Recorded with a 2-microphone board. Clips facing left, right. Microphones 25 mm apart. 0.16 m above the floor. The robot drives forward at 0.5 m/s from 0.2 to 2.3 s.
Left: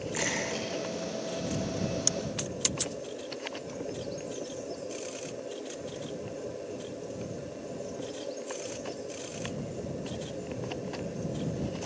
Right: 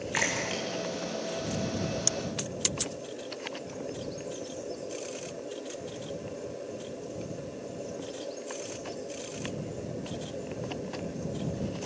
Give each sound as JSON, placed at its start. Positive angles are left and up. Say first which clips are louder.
{"t": 0.1, "sound": "a splash", "louder": "right 2 dB", "side_deg": -35, "distance_m": 7.0}